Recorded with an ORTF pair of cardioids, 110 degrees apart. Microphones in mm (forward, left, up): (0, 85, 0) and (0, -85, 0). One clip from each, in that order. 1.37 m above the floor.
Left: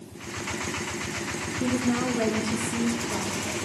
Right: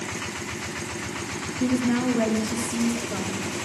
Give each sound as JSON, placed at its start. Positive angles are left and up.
{"t": 1.6, "sound": "a woman speaking", "azimuth_deg": -25, "distance_m": 2.5}